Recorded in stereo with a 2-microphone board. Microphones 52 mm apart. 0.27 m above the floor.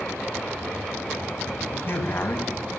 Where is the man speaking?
50° left (ahead or behind), 2 m.